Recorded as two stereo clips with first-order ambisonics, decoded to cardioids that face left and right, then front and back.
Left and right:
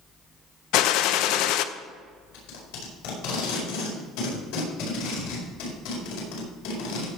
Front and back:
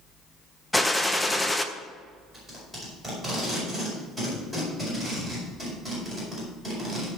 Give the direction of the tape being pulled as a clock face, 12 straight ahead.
9 o'clock.